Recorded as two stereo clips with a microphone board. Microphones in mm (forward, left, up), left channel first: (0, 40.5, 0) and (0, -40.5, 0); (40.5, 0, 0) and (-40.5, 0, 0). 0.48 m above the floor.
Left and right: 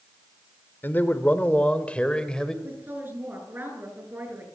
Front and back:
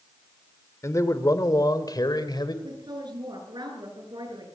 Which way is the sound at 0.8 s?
35° left.